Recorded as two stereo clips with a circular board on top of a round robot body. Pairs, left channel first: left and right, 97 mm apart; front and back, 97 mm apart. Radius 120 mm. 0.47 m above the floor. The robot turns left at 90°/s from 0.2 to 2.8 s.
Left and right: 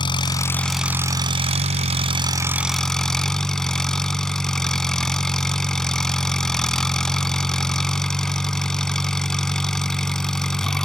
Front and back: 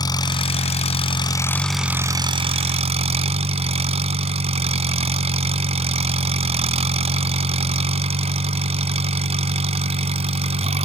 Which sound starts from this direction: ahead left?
An engine running, at 0.0 s.